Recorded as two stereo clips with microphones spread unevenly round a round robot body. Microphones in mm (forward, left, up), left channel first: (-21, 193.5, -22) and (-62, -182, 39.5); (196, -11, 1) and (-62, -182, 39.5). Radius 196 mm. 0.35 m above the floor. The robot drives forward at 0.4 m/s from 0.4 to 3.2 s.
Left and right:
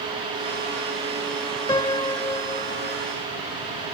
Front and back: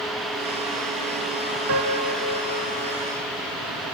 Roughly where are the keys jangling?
No keys jangling in this recording.